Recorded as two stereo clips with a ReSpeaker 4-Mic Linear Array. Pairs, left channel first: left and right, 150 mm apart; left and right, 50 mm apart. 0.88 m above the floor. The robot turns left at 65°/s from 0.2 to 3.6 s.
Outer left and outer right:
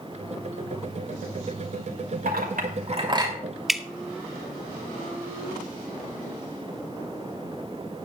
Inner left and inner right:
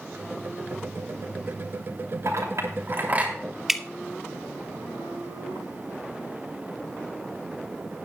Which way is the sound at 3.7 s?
Centre (ahead or behind).